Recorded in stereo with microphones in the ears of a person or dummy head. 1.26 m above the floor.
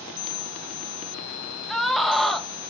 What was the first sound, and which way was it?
A scream, centre (ahead or behind).